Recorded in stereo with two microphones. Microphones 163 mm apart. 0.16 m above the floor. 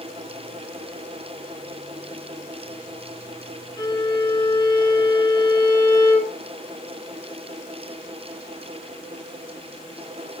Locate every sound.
3.8 s a violin: 30° left (ahead or behind), 0.9 m